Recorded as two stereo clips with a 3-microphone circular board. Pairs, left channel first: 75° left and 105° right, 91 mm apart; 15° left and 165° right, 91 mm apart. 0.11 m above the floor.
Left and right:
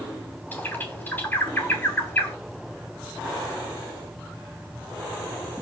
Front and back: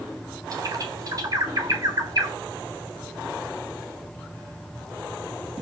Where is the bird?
145° left, 3 m.